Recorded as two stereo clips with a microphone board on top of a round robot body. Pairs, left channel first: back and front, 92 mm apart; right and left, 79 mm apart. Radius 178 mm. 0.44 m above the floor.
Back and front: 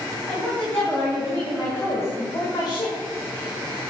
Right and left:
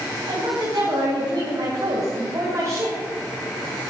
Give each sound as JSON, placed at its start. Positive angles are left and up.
{"t": 0.3, "sound": "a woman speaking", "azimuth_deg": 100, "distance_m": 4.0}